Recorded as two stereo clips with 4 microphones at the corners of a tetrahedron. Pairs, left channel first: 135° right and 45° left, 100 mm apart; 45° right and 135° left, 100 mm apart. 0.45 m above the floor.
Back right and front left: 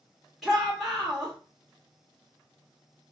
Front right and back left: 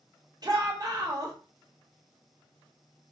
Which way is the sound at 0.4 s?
135° left.